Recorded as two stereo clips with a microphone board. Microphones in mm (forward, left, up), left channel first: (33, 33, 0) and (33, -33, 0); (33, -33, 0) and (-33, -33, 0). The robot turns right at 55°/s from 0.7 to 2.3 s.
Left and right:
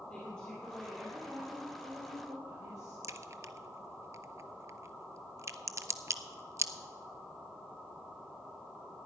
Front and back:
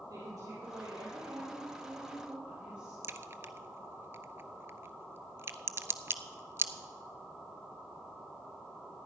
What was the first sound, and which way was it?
A woman speaking, 170° left.